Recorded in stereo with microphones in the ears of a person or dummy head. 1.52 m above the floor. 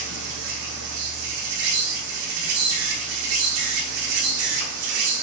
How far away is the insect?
About 6.5 m.